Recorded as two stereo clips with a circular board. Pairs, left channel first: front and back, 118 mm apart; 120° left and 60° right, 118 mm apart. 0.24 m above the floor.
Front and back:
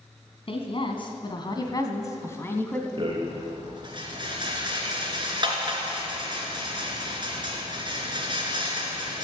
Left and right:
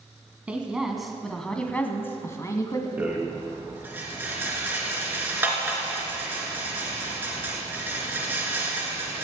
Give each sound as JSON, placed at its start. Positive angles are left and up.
{"t": 0.5, "sound": "a woman speaking", "azimuth_deg": 15, "distance_m": 2.0}
{"t": 3.0, "sound": "a rattle", "azimuth_deg": -135, "distance_m": 3.0}